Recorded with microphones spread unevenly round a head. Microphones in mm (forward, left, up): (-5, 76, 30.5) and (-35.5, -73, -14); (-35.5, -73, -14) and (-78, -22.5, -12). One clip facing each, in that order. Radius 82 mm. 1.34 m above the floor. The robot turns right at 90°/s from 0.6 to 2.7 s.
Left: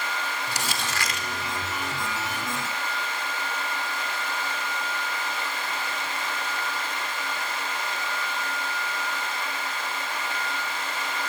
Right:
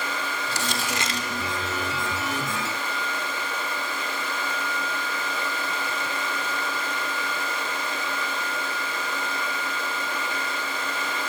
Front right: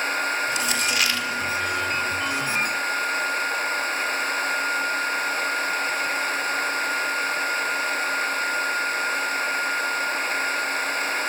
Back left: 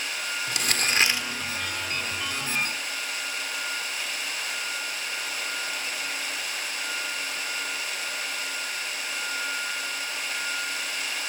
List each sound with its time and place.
0.5 s crumpling: 155° left, 4 m; by 1.3 s 145° right, 4 m